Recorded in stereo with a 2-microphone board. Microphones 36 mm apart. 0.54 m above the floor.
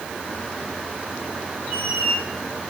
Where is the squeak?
55° right (ahead or behind), 4 m.